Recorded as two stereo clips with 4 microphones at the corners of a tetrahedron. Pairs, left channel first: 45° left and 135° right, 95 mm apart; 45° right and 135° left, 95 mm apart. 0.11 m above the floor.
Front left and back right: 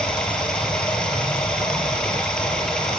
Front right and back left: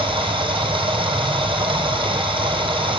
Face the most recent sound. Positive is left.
turn(degrees=130)